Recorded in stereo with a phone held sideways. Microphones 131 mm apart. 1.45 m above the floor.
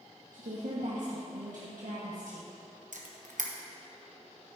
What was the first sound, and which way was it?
A woman speaking, 85° right.